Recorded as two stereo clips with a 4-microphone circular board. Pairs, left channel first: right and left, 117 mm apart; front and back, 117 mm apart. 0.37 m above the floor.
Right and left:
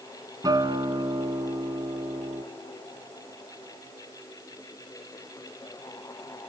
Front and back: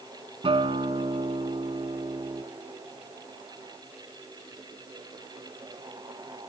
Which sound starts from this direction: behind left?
A guitar, at 0.4 s.